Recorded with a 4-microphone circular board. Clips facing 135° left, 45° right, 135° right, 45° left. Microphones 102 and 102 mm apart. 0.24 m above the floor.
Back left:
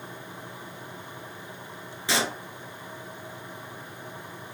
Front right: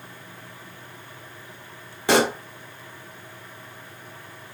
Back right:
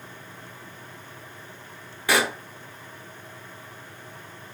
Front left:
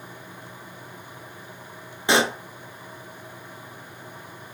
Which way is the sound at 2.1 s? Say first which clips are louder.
Front right 9 dB, front left 2 dB; 20° right.